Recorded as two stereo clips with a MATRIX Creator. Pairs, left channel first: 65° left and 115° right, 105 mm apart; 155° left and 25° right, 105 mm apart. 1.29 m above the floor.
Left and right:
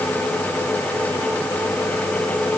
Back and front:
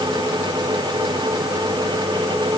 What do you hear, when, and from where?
Only background noise.